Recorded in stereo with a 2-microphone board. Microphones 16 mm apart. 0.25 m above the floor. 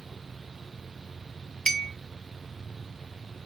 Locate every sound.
1.7 s a clink: 20° left (ahead or behind), 0.5 m